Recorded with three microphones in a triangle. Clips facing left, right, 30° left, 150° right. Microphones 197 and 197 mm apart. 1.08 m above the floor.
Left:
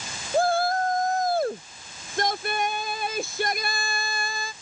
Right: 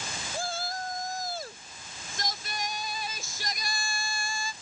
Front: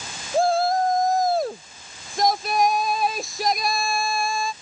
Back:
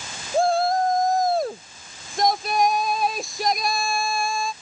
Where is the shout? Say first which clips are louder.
Left 14 dB, even; 120° left.